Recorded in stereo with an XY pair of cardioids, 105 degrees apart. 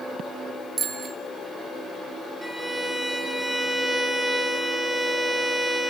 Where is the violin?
5° left, 7.5 m.